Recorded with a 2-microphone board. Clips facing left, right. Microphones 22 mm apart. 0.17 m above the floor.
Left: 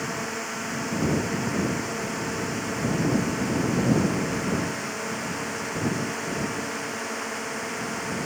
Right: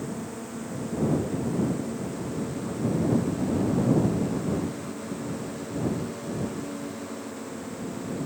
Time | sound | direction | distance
0.0 | a drone | 65° left (ahead or behind) | ?